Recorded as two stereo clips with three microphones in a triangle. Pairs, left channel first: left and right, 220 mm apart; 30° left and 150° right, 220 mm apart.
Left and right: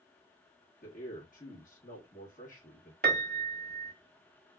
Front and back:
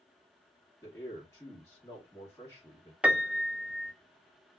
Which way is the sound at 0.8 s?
100° left.